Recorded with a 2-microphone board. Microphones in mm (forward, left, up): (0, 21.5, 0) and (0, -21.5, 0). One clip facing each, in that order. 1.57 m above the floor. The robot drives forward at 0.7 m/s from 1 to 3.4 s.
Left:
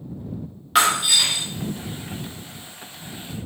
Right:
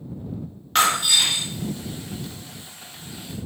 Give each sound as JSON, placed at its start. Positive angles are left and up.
{"t": 0.8, "sound": "breaking glass", "side_deg": 5, "distance_m": 1.6}